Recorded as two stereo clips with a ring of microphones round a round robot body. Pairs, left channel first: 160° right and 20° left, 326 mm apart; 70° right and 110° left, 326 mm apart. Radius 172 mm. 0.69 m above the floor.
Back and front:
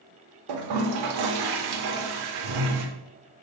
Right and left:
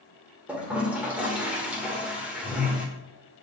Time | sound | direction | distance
0.5 | a toilet flushing | 25° left | 1.1 m